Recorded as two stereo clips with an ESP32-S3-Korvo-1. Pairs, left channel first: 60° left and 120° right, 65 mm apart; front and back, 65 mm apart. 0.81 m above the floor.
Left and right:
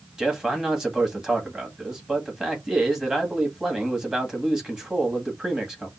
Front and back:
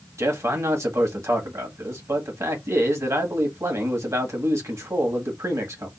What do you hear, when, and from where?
0.2 s a man speaking: 160° left, 1.5 m